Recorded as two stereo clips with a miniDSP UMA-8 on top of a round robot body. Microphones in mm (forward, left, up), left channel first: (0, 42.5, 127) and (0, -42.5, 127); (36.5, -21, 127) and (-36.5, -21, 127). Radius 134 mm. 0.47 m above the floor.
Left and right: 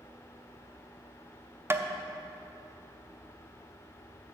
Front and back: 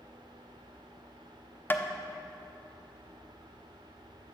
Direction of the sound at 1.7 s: 45° right.